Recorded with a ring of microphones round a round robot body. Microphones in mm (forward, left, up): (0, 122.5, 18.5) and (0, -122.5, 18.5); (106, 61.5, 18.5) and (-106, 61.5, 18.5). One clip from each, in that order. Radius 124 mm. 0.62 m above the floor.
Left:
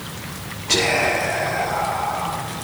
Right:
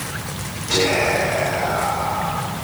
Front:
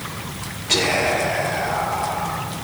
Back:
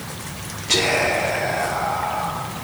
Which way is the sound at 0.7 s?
110° left.